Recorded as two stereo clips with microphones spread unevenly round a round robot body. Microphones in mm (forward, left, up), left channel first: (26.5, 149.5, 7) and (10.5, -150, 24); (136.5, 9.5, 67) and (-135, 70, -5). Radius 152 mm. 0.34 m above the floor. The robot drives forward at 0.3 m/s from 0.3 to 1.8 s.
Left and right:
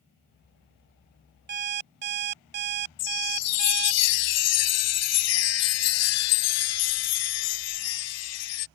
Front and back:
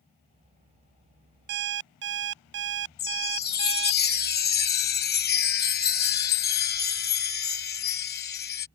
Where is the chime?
50° left.